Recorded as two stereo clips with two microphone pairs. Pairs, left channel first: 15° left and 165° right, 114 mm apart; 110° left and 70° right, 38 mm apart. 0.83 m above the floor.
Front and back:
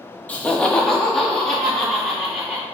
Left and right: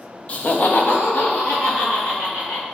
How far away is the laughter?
About 0.6 m.